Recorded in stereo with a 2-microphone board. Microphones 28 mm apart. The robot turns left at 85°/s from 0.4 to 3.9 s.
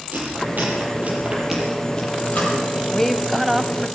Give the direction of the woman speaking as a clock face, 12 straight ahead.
11 o'clock.